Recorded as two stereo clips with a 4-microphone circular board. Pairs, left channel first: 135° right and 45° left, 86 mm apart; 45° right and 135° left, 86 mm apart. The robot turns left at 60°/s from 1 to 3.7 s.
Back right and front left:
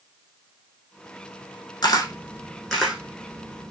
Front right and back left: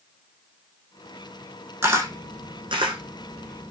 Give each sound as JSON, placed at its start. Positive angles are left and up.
{"t": 1.8, "sound": "a camera shutter", "azimuth_deg": -160, "distance_m": 1.7}